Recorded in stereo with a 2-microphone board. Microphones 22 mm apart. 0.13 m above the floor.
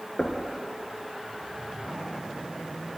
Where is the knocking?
45° left (ahead or behind), 1.2 m.